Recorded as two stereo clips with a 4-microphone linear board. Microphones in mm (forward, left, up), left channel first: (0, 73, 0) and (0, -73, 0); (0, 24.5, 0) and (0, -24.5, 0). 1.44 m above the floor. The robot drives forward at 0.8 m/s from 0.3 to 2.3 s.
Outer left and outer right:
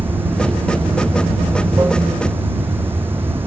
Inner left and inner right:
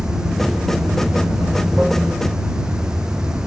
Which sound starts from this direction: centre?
Running water, at 0.0 s.